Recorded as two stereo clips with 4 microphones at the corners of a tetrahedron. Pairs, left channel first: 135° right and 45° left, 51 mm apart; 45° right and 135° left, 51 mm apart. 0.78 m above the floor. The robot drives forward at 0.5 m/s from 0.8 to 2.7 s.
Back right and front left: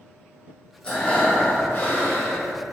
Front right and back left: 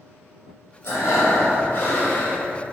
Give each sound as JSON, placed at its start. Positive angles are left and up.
{"t": 0.8, "sound": "breathing", "azimuth_deg": -65, "distance_m": 1.1}